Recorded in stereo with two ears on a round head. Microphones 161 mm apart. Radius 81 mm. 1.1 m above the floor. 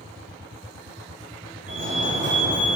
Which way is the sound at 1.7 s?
45° right (ahead or behind).